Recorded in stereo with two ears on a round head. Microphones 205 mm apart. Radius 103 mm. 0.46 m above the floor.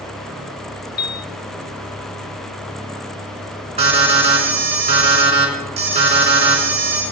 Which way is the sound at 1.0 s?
40° left (ahead or behind).